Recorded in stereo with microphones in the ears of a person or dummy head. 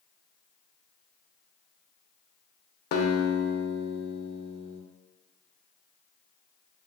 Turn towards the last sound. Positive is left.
turn(degrees=55)  # may be behind; listen again after turning